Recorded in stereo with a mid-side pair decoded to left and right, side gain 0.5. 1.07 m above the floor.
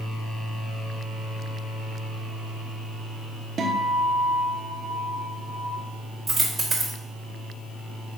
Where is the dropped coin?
30° right, 1.0 m.